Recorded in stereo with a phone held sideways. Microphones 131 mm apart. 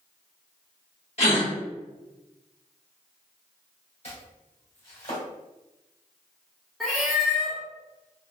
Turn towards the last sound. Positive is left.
turn(degrees=0)  # may be behind; listen again after turning